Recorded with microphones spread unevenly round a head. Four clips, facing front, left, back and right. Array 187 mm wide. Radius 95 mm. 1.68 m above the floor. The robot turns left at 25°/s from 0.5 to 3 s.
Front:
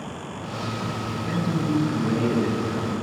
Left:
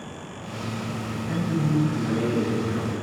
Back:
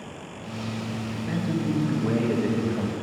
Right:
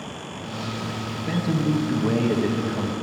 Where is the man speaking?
90° right, 1.7 m; by 2.9 s 135° right, 1.7 m.